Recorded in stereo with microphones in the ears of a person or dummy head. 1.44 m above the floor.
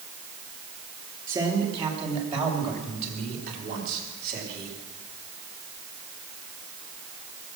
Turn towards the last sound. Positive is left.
turn(degrees=-55)  # may be behind; listen again after turning